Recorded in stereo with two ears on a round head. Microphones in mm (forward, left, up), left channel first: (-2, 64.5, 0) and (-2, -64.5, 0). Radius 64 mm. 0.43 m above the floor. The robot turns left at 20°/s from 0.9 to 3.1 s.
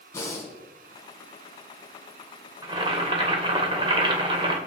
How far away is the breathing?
About 4 m.